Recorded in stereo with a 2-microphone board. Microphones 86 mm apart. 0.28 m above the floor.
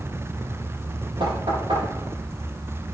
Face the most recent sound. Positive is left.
turn(degrees=-85)